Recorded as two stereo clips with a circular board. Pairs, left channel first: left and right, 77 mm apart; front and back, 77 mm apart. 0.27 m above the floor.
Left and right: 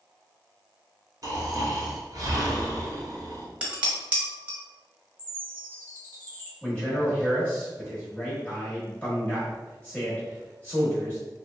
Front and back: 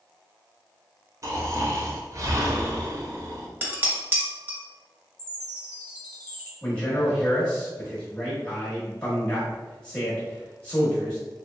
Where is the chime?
65° left, 1.0 m.